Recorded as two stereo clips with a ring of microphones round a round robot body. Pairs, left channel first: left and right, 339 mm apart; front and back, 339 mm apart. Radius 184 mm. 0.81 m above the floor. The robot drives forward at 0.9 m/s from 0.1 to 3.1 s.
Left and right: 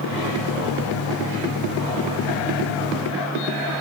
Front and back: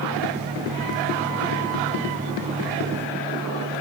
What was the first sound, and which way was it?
Only background noise.